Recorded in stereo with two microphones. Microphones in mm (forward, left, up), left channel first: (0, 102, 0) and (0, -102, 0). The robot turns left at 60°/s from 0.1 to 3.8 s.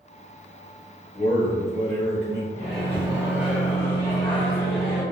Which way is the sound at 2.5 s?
120° right.